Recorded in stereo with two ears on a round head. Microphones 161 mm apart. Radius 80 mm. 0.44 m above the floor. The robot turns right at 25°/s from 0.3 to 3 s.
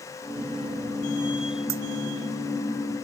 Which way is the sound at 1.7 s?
85° right.